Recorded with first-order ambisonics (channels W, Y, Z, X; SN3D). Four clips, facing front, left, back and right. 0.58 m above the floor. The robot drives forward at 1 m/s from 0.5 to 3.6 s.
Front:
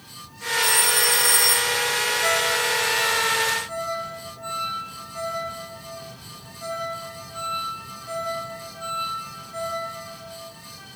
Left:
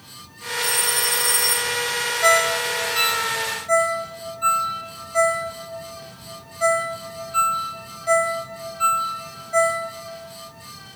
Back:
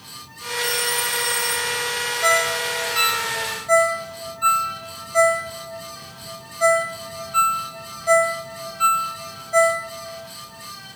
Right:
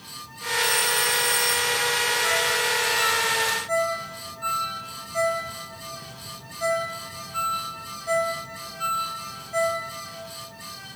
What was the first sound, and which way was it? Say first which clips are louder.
A phone ringing: even, front 2 dB; 20° left.